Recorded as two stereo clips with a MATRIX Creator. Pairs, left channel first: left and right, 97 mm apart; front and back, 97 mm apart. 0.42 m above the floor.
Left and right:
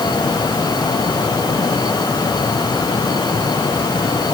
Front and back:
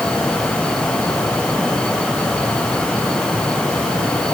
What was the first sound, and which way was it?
Only background noise.